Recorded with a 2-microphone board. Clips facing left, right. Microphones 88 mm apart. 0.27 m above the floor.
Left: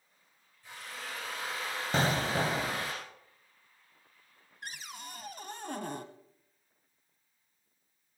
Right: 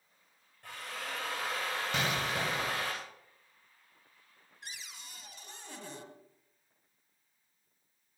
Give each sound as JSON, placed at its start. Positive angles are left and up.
{"t": 0.6, "sound": "a drill", "side_deg": -65, "distance_m": 8.5}
{"t": 1.9, "sound": "an explosion", "side_deg": 35, "distance_m": 1.0}
{"t": 4.6, "sound": "a cupboard door", "side_deg": 55, "distance_m": 1.2}